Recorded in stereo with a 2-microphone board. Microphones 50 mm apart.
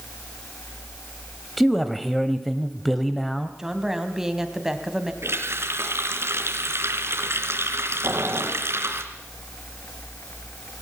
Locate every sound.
1.6 s a man speaking: centre (ahead or behind), 1.2 m
3.6 s a woman speaking: 10° right (ahead or behind), 2.5 m
5.2 s a running tap: 70° right (ahead or behind), 3 m
8.0 s boiling: 80° right, 4.5 m